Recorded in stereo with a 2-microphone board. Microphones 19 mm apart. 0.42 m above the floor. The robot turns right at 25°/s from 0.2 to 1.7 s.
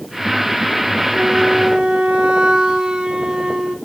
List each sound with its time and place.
1.1 s a flute: 60° right (ahead or behind), 1.8 m; by 3.8 s 70° right (ahead or behind), 1.8 m